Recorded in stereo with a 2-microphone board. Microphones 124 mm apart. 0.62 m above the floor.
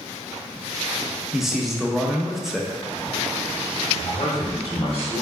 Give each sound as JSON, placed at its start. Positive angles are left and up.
{"t": 1.3, "sound": "a man speaking", "side_deg": 0, "distance_m": 0.6}
{"t": 4.0, "sound": "a man speaking", "side_deg": 50, "distance_m": 1.5}